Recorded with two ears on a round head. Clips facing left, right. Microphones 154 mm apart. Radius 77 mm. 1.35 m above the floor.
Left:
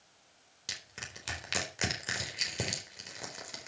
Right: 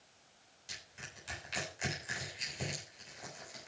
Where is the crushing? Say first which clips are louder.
Left 4 dB; 85° left, 4 m.